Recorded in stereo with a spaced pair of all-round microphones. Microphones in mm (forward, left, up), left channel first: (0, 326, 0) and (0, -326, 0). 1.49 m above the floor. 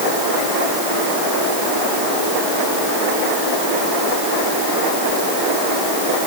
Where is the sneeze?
I don't hear a sneeze.